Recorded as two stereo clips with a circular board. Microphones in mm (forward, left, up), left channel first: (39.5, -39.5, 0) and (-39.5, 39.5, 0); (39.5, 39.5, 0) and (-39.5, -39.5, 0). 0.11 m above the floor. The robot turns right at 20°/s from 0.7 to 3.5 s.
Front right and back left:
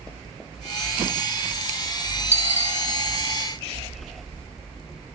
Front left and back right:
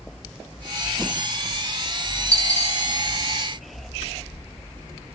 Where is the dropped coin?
70° right, 4.5 m; by 2.8 s 65° right, 4.5 m.